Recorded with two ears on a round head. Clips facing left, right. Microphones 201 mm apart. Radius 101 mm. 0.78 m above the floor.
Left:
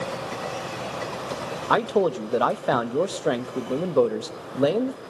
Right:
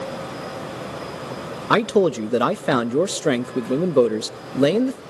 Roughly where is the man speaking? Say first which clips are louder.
Right 4 dB; right.